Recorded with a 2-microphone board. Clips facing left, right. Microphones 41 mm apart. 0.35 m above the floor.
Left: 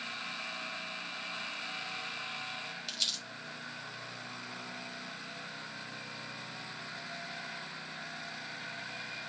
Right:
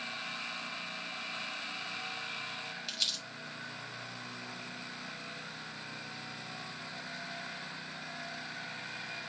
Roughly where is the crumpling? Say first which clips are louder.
Right 1 dB; centre.